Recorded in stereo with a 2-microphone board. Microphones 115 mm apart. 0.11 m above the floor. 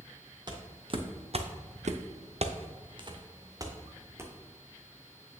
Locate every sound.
0.5 s footsteps: 40° right (ahead or behind), 1.6 m; by 4.3 s 20° right (ahead or behind), 2 m